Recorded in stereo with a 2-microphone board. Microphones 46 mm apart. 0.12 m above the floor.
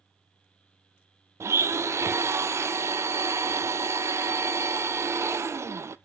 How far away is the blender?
About 0.6 m.